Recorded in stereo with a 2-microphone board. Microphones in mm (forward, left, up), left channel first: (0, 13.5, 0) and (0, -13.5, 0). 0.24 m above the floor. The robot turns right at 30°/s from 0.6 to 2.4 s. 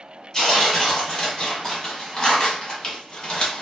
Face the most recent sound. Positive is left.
turn(degrees=90)